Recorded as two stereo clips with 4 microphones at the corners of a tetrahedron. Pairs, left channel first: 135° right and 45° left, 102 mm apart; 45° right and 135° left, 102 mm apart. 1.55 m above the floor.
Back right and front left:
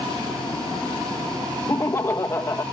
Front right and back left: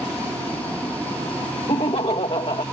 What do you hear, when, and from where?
1.7 s laughter: 75° right